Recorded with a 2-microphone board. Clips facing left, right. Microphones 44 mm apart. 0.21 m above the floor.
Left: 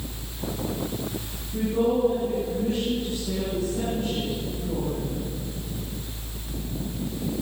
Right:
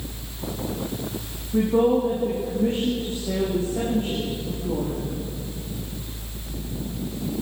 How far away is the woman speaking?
About 9.5 m.